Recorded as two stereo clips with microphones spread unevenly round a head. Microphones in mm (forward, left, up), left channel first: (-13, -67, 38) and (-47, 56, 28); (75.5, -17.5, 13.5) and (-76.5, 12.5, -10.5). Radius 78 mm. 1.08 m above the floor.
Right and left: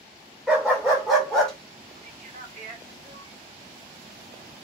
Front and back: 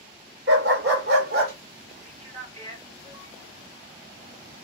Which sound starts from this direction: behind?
A dog barking, at 0.5 s.